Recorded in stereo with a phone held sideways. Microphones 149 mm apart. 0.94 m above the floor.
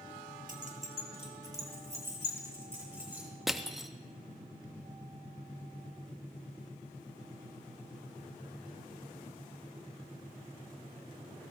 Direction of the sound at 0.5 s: 60° right (ahead or behind).